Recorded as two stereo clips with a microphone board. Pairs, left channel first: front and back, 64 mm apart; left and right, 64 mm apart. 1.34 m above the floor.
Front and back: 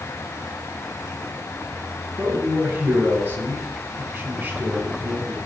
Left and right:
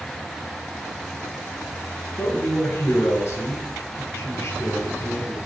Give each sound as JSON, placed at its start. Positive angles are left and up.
{"t": 2.2, "sound": "a man speaking", "azimuth_deg": 130, "distance_m": 1.8}